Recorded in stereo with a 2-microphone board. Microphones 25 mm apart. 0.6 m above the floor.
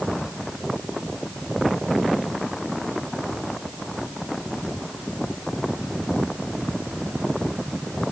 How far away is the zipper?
I don't hear a zipper.